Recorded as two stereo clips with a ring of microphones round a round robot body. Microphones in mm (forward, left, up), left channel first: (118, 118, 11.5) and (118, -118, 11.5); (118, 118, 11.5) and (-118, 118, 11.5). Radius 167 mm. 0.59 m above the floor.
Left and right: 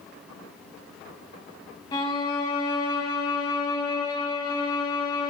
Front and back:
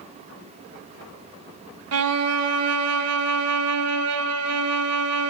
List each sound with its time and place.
1.9 s a violin: 170° left, 1.5 m